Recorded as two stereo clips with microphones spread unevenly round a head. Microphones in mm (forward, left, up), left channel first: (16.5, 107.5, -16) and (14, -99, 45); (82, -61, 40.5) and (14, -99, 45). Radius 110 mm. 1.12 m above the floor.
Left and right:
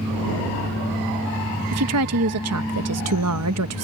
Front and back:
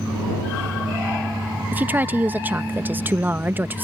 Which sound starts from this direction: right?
A woman speaking, at 1.7 s.